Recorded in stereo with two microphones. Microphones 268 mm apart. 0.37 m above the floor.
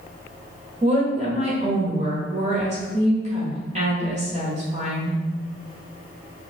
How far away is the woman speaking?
About 1.3 m.